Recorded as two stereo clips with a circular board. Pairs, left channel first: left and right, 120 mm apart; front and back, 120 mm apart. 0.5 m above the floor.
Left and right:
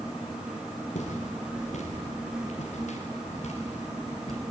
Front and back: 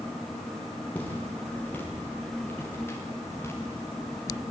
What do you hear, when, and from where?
0.9 s footsteps: 75° left, 9 m; by 4.4 s 65° left, 7.5 m